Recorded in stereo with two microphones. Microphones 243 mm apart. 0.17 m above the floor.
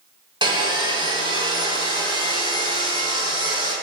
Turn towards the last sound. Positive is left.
turn(degrees=-20)  # may be behind; listen again after turning